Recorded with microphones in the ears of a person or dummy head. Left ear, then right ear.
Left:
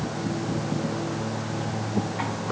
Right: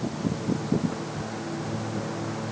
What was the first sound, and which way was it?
Only background noise.